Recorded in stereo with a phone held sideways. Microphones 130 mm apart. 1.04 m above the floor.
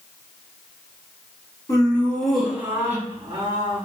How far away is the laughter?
About 0.9 m.